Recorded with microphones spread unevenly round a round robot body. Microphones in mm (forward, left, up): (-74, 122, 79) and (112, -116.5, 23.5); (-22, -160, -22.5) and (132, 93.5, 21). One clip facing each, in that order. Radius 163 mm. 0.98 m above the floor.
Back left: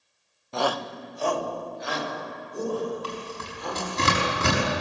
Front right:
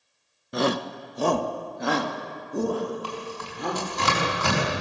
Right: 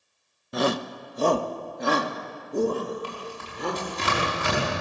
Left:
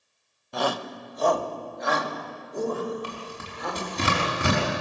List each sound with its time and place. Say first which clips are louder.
0.5 s a shout: front right 3 dB, right 3 dB; 90° right, 0.9 m; by 3.9 s 70° right, 4 m
3.0 s tearing paper: front right 1 dB, right 1 dB; 60° left, 6 m